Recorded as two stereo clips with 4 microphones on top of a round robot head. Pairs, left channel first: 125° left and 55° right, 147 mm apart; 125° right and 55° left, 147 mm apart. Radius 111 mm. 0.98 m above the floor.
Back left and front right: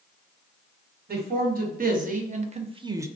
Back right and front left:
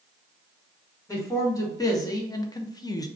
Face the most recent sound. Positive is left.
turn(degrees=-105)